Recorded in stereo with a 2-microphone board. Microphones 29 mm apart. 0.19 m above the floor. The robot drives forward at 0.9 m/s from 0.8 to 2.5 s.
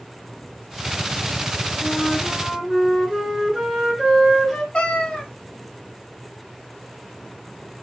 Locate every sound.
1.8 s a flute: 5° left (ahead or behind), 3 m
4.7 s a cat meowing: 35° left (ahead or behind), 1.2 m